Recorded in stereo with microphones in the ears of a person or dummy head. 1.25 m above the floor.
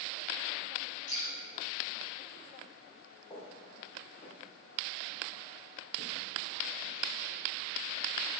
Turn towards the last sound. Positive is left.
turn(degrees=45)  # may be behind; listen again after turning